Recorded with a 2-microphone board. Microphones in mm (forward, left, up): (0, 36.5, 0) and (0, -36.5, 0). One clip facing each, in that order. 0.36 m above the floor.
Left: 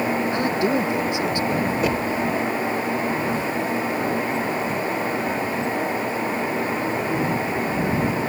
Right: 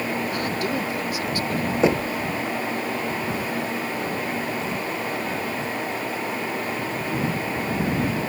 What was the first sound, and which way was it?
A man speaking, 25° left (ahead or behind).